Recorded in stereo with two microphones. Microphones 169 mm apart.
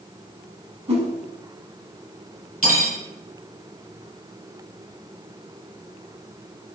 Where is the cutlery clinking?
60° left (ahead or behind), 1.4 m.